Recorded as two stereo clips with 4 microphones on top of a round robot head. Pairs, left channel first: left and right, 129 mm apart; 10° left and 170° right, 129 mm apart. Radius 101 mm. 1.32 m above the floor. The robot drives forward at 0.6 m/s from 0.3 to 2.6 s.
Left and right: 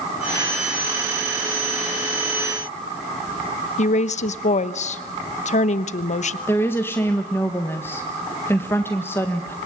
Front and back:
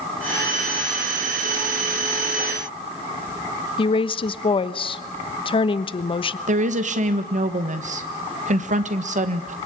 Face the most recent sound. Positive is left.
turn(degrees=165)